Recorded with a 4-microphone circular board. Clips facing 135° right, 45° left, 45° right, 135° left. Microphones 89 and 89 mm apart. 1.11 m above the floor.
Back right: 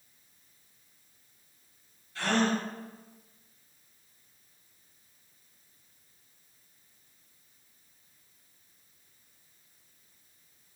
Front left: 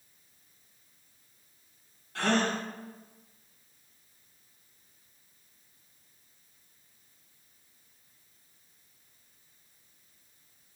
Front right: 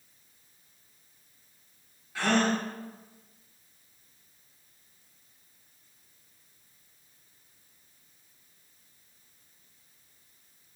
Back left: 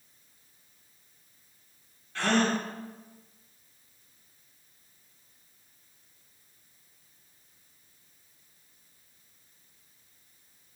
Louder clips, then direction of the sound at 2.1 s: Even, even; 35° left.